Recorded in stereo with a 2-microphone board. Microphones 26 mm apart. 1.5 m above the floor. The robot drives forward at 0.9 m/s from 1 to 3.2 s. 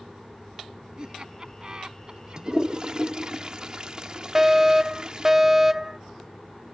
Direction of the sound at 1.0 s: 30° right (ahead or behind).